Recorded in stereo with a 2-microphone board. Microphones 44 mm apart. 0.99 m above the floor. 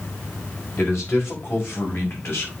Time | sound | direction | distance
0.8 | a man speaking | 75° left (ahead or behind) | 5 m